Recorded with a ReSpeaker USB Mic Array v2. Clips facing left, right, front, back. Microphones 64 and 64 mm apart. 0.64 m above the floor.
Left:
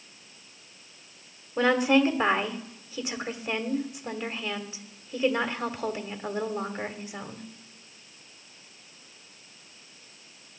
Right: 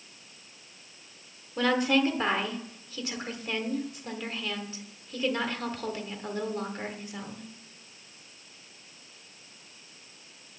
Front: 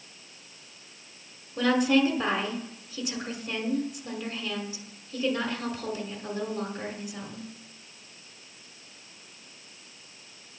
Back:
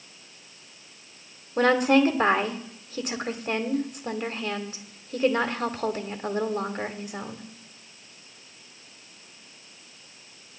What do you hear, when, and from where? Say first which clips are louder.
1.6 s a woman speaking: left 3 dB, back 3 dB; 160° left, 1.6 m